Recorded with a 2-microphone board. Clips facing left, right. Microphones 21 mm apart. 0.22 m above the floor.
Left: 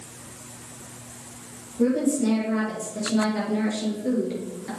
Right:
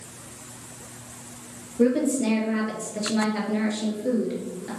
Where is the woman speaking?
45° right (ahead or behind), 5 m; by 4.7 s 5° left (ahead or behind), 4 m.